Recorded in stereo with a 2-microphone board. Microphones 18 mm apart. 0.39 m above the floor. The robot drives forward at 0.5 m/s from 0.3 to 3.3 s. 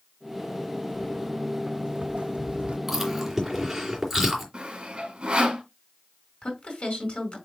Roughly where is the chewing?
Centre.